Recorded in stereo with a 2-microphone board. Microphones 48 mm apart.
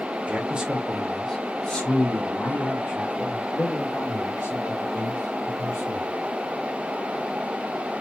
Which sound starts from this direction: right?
A man speaking, at 0.3 s.